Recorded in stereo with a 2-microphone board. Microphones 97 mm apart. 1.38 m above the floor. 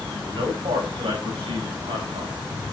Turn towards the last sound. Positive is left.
turn(degrees=-85)